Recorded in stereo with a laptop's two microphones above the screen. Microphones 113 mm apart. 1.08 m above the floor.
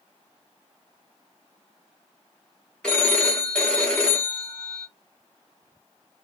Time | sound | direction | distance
2.8 | a phone ringing | 10° left (ahead or behind) | 0.9 m